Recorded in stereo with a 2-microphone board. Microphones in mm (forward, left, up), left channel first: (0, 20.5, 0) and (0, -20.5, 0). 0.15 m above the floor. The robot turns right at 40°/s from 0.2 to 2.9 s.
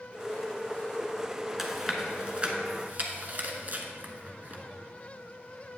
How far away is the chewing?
About 1.1 m.